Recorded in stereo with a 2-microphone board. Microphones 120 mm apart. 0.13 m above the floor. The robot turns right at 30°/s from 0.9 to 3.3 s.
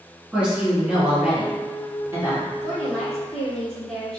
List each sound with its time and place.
0.3 s a woman speaking: 10° right (ahead or behind), 1.2 m; by 2.5 s 20° right (ahead or behind), 1.2 m
2.6 s a woman speaking: 10° left (ahead or behind), 1.4 m; by 4.2 s centre (ahead or behind), 1.4 m